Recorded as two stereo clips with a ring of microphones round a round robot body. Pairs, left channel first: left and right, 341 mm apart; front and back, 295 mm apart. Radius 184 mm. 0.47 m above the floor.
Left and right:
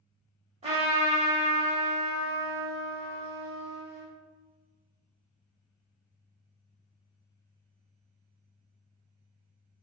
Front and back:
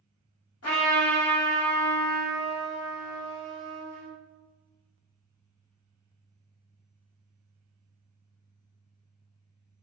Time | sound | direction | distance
0.6 | a trumpet | 20° right | 1.0 m